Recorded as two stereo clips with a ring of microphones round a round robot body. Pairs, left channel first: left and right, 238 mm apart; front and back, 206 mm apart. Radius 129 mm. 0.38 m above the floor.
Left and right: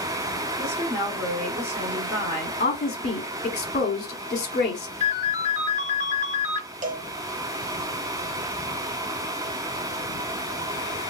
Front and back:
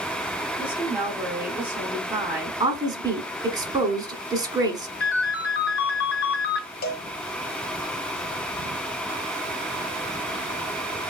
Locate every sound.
0.6 s a woman speaking: 105° right, 1.4 m
2.6 s a woman speaking: 125° left, 1.1 m
5.0 s a ringtone: 35° right, 1.7 m
6.8 s a cowbell: 40° right, 0.6 m